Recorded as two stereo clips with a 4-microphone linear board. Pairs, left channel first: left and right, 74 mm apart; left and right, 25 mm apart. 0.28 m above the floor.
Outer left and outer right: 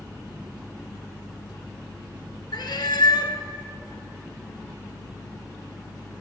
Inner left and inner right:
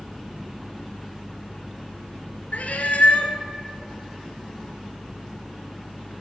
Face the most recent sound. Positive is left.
turn(degrees=80)